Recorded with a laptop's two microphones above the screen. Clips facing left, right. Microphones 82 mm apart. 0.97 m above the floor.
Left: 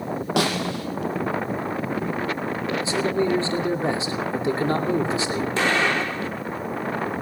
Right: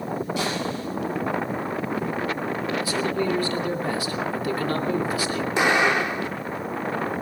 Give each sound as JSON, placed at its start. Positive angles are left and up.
{"t": 0.4, "sound": "a snare drum", "side_deg": 70, "distance_m": 5.5}
{"t": 2.8, "sound": "a man speaking", "side_deg": 25, "distance_m": 2.5}
{"t": 5.6, "sound": "an explosion", "side_deg": -15, "distance_m": 1.7}